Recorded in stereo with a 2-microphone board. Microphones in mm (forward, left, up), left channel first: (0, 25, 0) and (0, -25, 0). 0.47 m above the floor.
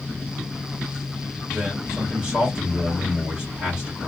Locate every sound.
1.5 s a man speaking: 20° right (ahead or behind), 1.7 m